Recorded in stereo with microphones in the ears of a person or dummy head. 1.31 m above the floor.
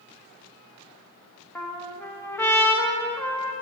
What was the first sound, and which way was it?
A trumpet, 5° left (ahead or behind).